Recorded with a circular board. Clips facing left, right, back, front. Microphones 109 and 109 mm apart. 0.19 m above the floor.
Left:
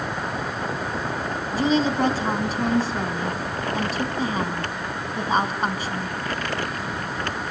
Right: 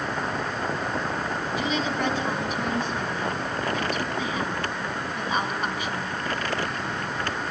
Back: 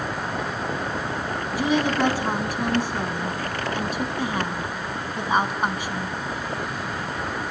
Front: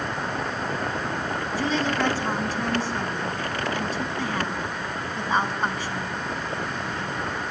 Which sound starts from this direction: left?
A woman speaking, at 1.5 s.